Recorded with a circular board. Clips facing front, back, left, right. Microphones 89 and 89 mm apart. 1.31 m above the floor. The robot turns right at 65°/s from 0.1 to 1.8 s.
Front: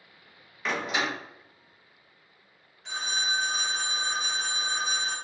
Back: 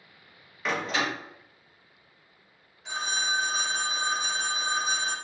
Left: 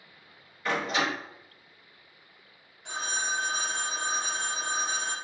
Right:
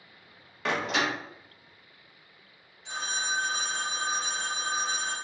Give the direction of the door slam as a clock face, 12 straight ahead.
3 o'clock.